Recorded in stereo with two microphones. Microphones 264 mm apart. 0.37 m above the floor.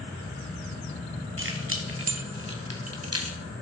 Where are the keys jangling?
50° right (ahead or behind), 2.5 m; by 3.4 s 60° right (ahead or behind), 1.7 m.